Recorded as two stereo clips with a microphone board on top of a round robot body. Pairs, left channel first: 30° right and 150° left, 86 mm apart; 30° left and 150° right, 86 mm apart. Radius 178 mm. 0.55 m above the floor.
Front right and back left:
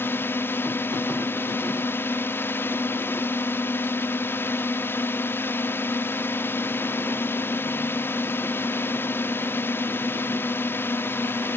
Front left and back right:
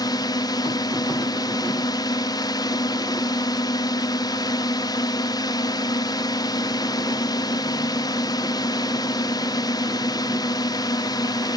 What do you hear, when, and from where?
0.0 s a drone: 25° left